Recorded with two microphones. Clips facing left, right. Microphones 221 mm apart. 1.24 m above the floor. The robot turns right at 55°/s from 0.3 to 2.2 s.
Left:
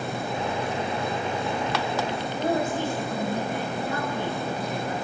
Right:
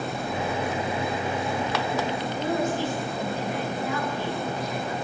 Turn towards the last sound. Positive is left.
turn(degrees=55)  # may be behind; listen again after turning